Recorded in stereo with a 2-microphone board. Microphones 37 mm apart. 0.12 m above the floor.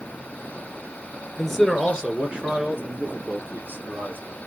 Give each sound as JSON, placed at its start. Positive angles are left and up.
{"t": 1.4, "sound": "a man speaking", "side_deg": 5, "distance_m": 1.7}